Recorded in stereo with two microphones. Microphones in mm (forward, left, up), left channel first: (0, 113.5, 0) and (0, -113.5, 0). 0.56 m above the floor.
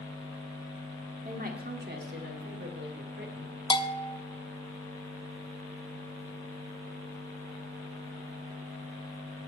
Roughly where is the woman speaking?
Right.